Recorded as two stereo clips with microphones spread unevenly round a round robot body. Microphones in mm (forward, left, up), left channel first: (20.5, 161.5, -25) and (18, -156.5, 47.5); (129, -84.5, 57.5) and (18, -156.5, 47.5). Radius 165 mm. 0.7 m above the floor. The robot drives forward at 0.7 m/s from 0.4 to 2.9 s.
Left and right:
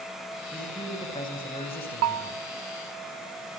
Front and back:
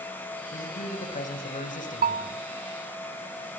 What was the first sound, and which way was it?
A man speaking, 15° left.